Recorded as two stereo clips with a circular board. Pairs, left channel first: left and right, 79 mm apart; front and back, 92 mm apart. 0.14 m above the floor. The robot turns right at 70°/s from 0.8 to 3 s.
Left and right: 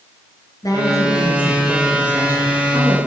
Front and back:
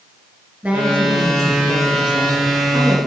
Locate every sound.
0.6 s a woman speaking: 110° left, 2.5 m; by 3.0 s 100° right, 2.5 m